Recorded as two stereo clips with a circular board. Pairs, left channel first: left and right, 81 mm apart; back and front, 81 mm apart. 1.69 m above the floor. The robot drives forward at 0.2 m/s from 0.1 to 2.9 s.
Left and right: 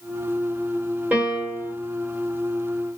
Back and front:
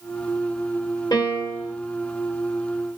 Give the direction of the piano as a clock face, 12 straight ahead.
5 o'clock.